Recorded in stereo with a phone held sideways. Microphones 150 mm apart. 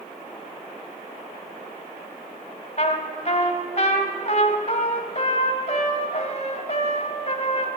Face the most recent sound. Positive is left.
turn(degrees=50)  # may be behind; listen again after turning